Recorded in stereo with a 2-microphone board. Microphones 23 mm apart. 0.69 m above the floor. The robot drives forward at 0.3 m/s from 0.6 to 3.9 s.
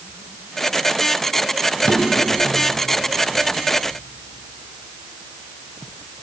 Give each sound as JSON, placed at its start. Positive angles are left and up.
{"t": 1.8, "sound": "a drawer", "side_deg": 60, "distance_m": 1.1}